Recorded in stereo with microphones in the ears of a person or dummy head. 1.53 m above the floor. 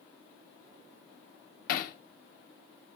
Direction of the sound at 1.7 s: 70° left (ahead or behind).